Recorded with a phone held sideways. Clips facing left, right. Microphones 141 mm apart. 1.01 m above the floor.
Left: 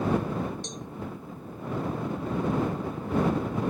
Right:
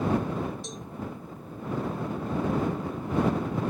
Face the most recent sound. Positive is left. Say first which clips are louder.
# left 1 dB
turn(degrees=-5)  # may be behind; listen again after turning